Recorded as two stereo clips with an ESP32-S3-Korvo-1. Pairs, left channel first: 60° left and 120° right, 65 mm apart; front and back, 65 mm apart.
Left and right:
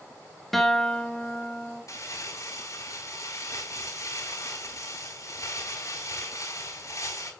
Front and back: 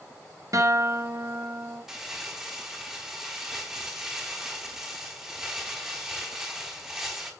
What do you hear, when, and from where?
0.5 s a guitar: 145° left, 1.8 m
1.9 s crumpling: 95° left, 4.5 m